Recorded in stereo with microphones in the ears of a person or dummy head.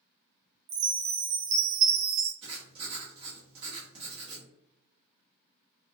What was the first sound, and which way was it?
A chime, 80° right.